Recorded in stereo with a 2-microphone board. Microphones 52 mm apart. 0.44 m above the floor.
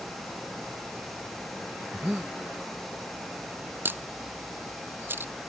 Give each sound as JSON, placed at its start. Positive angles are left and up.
{"t": 1.9, "sound": "breathing", "side_deg": -10}
{"t": 3.9, "sound": "a camera shutter", "side_deg": -45}